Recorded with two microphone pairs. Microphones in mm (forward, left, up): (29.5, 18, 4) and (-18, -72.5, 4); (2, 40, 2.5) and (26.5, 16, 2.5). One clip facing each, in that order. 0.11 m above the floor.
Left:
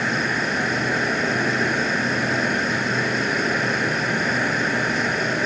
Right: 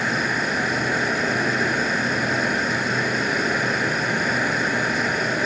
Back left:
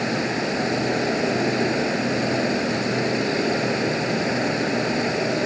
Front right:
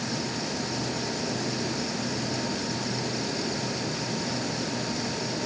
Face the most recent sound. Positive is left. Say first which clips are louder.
# even, back left 8 dB
turn(degrees=155)